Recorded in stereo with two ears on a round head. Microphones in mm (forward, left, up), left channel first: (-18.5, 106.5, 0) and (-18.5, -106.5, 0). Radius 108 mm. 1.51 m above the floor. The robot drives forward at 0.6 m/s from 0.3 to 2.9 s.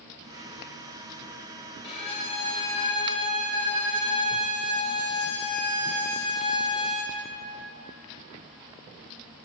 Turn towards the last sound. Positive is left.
turn(degrees=20)  # may be behind; listen again after turning